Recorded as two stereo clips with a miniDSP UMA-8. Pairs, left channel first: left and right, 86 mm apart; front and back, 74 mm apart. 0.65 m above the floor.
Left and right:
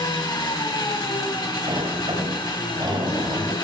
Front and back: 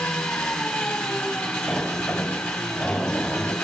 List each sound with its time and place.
0.0 s an engine running: 75° left, 1.8 m
1.7 s a sliding door: 80° right, 2 m